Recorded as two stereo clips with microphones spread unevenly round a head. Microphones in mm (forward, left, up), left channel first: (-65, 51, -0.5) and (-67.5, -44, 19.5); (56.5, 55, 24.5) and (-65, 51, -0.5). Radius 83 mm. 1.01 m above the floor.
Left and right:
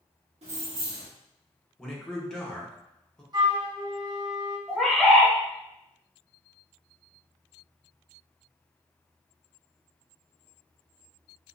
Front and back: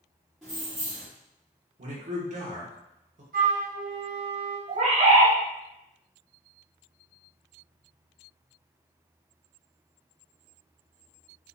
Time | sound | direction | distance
0.4 | keys jangling | 90° right | 1.2 m
1.8 | a man speaking | 170° left | 1.1 m
3.3 | a flute | 135° right | 0.9 m
4.7 | a bird | 170° right | 1.1 m